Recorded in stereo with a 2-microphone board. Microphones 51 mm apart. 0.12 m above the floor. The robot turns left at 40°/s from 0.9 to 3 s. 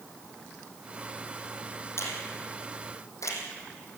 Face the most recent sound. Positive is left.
turn(degrees=70)  # may be behind; listen again after turning